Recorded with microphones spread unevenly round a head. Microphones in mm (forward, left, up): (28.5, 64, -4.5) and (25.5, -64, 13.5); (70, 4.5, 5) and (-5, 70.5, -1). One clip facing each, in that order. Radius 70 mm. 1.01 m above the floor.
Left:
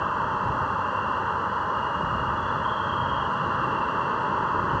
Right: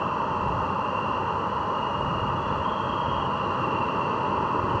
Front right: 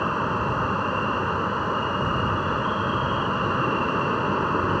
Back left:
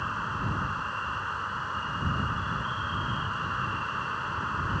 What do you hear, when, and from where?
0.0 s an insect: 15° right